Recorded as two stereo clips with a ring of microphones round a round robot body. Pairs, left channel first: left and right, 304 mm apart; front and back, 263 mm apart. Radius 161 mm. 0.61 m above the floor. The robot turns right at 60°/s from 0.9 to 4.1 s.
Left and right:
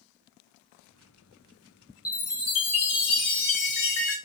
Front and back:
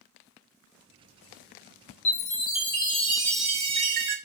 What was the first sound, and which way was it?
A chime, 10° left.